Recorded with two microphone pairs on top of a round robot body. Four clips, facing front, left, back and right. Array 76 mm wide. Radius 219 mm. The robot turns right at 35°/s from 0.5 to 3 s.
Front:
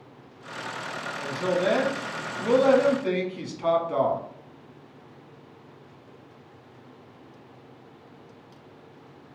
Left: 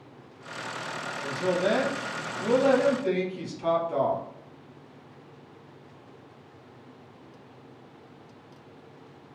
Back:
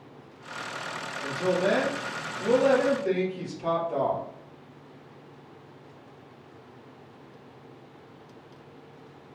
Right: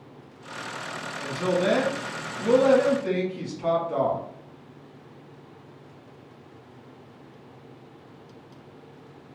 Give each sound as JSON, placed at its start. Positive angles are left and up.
{"t": 1.2, "sound": "a woman speaking", "azimuth_deg": -80, "distance_m": 1.5}